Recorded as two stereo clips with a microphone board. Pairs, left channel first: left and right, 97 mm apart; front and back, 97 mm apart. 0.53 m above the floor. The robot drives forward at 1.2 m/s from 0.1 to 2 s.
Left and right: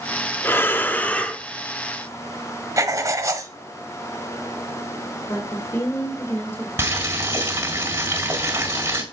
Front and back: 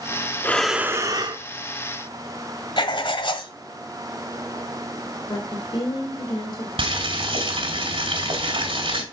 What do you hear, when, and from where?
0.4 s breathing: 45° left, 0.7 m; by 1.4 s 165° left, 1.2 m
2.8 s writing: 35° right, 1.1 m
5.3 s a woman speaking: 30° left, 2.0 m
6.8 s boiling: 155° right, 3.5 m